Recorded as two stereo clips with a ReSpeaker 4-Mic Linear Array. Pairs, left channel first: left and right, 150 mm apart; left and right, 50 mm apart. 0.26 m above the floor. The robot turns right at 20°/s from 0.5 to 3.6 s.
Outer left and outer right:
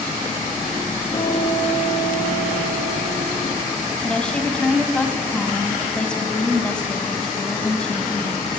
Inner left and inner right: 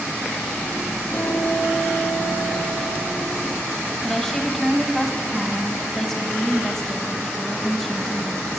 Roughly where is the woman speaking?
Centre.